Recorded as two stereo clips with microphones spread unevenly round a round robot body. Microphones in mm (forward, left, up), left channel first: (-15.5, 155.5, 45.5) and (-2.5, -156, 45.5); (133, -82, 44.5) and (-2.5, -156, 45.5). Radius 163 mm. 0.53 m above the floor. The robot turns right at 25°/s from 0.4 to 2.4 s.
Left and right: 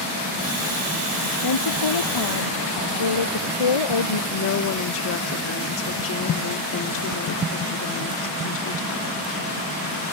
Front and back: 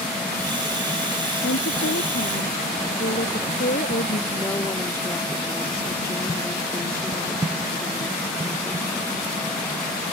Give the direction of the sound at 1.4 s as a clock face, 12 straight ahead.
10 o'clock.